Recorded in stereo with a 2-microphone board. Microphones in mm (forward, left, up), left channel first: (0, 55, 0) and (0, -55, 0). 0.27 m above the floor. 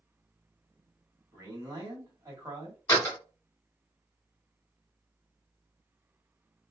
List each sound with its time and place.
1.3 s a man speaking: 25° right (ahead or behind), 1.5 m
2.9 s a door slam: 25° left (ahead or behind), 1.8 m